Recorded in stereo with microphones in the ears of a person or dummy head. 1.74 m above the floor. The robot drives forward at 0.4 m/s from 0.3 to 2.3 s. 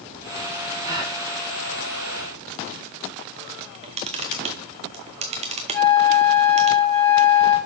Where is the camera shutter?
35° right (ahead or behind), 0.8 m.